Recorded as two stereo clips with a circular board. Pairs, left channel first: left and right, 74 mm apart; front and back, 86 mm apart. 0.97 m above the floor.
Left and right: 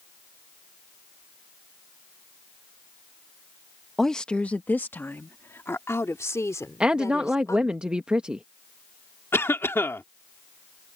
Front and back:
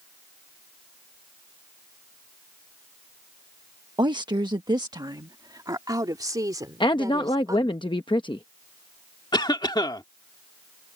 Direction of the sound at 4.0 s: 175° left.